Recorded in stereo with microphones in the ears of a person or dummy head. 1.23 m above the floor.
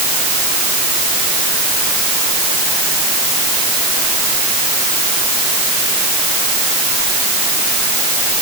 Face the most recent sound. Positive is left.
No sound to turn to.